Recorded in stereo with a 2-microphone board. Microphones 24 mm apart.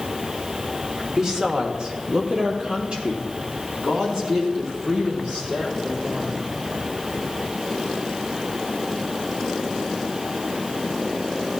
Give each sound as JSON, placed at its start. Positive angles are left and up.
{"t": 1.2, "sound": "a woman speaking", "side_deg": -30, "distance_m": 0.9}